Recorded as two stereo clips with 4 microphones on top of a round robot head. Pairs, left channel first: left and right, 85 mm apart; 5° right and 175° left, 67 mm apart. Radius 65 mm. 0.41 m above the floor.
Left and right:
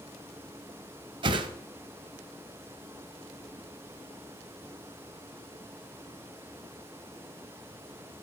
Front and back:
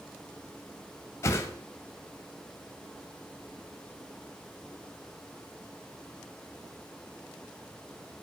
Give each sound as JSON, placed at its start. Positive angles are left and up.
{"t": 1.2, "sound": "a whoosh", "azimuth_deg": -60, "distance_m": 0.9}